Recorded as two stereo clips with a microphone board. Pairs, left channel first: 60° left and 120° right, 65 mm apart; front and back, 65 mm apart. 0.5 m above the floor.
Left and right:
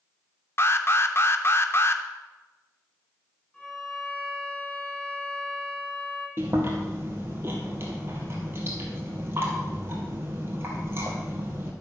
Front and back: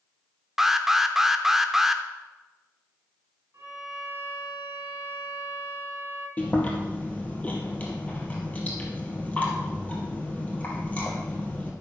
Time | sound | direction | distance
0.6 | an alarm | 100° left | 0.6 m
3.5 | a violin | 135° left | 3 m
6.4 | chewing | 65° right | 2 m